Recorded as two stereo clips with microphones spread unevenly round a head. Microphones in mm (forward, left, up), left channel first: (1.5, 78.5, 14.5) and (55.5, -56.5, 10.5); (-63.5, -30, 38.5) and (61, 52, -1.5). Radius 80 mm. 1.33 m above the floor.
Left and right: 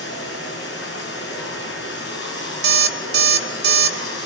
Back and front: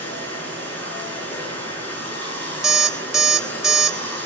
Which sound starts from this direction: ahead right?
An alarm clock, at 2.6 s.